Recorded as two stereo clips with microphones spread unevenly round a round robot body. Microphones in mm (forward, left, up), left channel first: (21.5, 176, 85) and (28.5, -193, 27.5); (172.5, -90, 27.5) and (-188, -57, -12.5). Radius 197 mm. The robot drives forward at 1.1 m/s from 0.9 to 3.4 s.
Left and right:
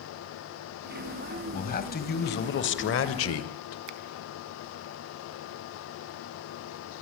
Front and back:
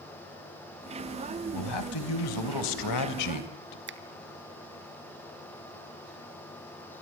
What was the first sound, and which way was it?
A man speaking, 20° left.